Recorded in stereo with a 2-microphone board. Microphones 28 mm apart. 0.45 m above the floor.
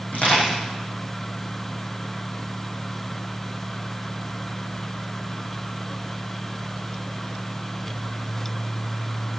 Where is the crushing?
65° left (ahead or behind), 9 m.